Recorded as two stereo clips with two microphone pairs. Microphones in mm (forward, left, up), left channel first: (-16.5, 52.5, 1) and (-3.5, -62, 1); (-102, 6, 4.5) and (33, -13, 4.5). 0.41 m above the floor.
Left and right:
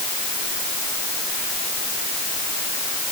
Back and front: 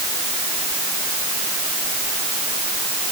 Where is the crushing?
I don't hear crushing.